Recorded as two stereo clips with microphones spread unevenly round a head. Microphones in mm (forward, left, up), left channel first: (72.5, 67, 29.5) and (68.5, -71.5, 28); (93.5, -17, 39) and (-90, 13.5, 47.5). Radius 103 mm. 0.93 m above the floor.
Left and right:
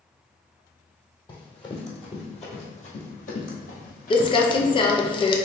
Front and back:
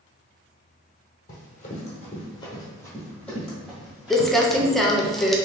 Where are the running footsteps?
35° left, 1.7 m; by 5.1 s 100° left, 2 m.